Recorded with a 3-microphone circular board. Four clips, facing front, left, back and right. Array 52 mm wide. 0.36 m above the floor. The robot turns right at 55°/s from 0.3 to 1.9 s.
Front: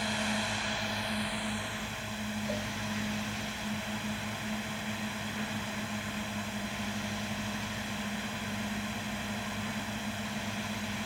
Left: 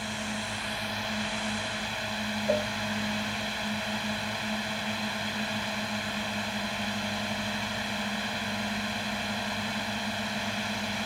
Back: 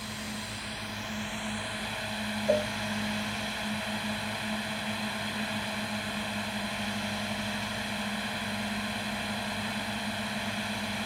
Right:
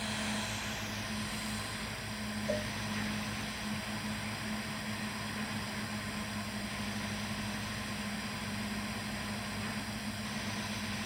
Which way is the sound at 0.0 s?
25° left.